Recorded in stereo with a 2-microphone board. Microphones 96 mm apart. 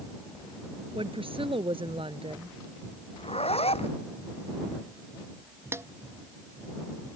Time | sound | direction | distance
0.9 | a woman speaking | 65° right (ahead or behind) | ?
3.2 | a zipper | 80° left | ?
5.7 | a snare drum | 25° right (ahead or behind) | ?